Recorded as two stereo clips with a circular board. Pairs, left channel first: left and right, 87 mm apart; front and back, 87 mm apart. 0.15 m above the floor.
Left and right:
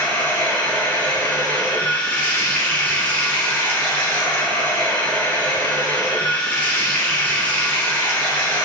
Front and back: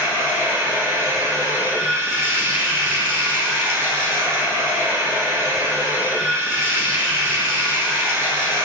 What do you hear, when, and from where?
0.0 s running water: 145° left, 1.0 m